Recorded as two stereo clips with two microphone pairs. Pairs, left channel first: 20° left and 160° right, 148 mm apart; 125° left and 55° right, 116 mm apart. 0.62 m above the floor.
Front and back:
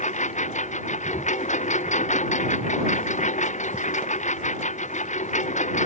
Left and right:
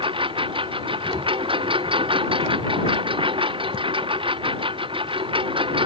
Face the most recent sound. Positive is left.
turn(degrees=-15)